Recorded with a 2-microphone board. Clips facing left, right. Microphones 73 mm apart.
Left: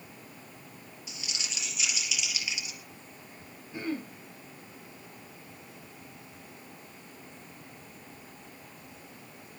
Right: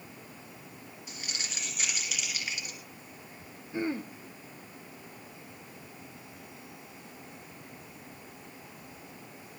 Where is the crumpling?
50° right (ahead or behind), 3.5 m.